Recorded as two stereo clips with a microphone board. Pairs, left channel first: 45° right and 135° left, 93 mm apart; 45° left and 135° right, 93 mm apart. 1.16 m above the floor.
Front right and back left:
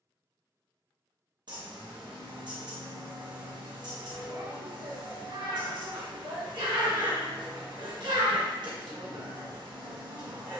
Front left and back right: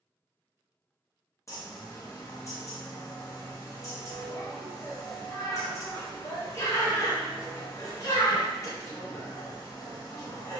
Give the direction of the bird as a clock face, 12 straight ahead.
9 o'clock.